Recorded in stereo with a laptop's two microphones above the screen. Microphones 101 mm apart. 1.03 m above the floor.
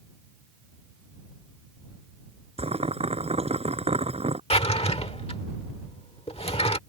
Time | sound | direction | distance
2.6 | boiling | 75° right (ahead or behind) | ?
4.5 | a drawer | 70° left (ahead or behind) | ?